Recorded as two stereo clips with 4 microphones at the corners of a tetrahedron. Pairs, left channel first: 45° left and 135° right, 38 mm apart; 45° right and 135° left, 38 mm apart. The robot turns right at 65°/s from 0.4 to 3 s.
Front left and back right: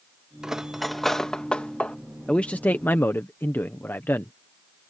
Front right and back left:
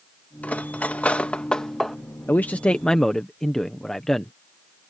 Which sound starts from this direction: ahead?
A man speaking, at 2.3 s.